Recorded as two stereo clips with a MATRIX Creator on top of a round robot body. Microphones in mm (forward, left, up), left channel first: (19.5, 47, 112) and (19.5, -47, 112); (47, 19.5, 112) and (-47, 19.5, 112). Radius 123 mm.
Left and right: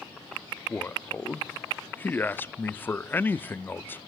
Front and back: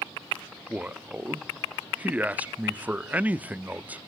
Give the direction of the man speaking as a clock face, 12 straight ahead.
8 o'clock.